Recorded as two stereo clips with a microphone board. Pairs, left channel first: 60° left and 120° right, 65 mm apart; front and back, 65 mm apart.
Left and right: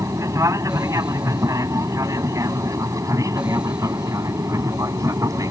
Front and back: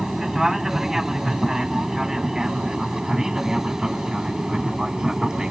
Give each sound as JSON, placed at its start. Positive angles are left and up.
{"t": 0.0, "sound": "an aircraft", "azimuth_deg": -100}